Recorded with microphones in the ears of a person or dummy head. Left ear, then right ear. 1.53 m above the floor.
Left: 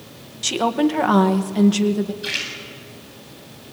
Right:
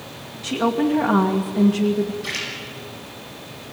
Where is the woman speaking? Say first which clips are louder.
Left 2 dB; 75° left (ahead or behind), 1.9 m.